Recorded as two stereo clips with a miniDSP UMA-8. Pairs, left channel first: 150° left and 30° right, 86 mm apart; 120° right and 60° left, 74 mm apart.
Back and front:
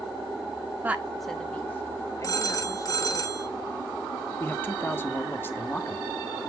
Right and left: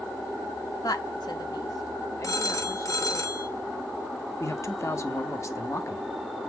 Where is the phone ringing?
165° right, 1.1 m.